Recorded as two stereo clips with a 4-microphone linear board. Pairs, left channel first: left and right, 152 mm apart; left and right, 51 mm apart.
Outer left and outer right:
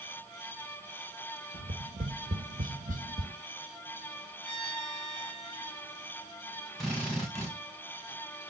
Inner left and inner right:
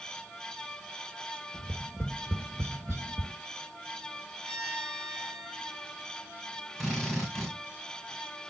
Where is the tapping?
55° right (ahead or behind), 1.5 m.